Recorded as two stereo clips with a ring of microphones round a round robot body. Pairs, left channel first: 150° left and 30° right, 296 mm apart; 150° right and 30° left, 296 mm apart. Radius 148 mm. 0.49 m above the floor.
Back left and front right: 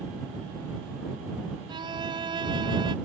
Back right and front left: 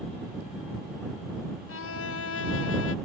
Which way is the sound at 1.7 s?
105° right.